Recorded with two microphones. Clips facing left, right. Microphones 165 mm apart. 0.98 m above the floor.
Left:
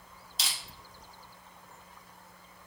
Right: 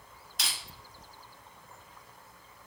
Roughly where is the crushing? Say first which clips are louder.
Even; right.